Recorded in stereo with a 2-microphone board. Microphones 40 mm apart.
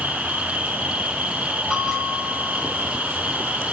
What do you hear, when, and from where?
0.0 s an insect: 45° right (ahead or behind), 0.9 m
1.7 s a bell: centre (ahead or behind), 2.0 m